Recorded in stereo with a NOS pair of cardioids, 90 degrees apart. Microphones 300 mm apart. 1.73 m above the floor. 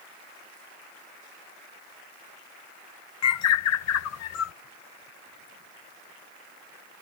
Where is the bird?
60° left.